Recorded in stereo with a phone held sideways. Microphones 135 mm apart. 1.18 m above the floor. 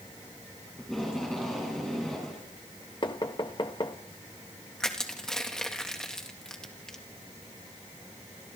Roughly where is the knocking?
Left.